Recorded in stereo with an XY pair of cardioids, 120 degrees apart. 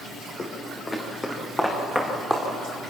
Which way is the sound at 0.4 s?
30° left.